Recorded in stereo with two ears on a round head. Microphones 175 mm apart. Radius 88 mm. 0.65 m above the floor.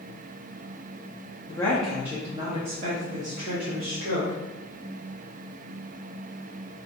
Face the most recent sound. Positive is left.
turn(degrees=-65)  # may be behind; listen again after turning